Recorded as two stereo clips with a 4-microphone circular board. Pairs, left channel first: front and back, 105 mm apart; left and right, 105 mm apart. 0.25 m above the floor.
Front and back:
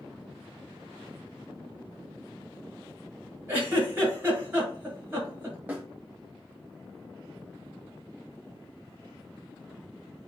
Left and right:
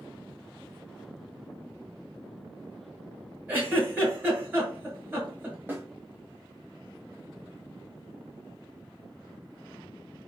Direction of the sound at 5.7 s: 130° right.